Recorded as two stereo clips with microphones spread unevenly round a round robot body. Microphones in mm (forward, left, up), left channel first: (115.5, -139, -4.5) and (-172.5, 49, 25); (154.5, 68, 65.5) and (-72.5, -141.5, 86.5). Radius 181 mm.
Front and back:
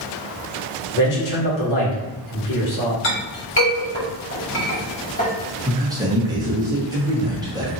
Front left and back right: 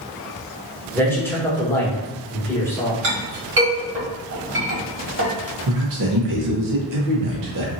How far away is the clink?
About 1.5 m.